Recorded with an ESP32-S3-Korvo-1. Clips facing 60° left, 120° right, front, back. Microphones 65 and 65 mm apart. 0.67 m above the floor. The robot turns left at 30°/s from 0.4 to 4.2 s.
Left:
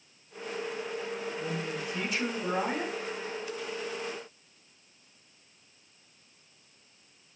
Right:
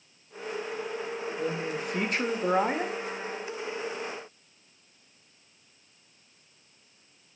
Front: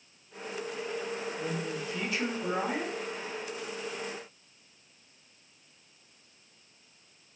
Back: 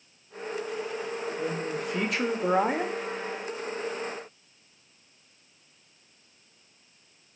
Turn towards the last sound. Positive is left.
turn(degrees=140)